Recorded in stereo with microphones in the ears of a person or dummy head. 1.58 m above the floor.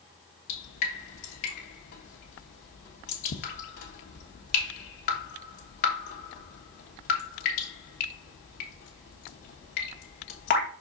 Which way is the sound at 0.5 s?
45° left (ahead or behind).